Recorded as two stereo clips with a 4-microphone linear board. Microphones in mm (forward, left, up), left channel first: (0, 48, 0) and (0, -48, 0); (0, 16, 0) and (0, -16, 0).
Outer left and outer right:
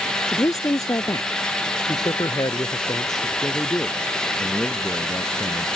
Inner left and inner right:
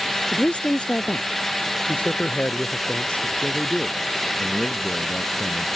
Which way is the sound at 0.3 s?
35° left (ahead or behind).